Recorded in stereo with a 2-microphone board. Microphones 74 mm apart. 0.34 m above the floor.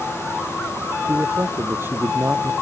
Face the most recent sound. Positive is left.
turn(degrees=-35)  # may be behind; listen again after turning